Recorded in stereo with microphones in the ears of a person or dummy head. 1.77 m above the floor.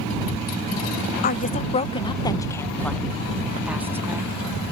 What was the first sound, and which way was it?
A woman speaking, 45° left (ahead or behind).